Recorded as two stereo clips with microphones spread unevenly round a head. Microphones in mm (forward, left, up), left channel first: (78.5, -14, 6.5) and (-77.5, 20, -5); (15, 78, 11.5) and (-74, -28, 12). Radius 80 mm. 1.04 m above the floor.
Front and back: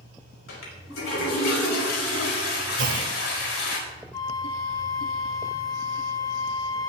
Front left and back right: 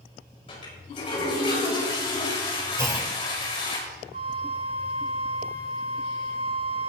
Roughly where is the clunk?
Behind.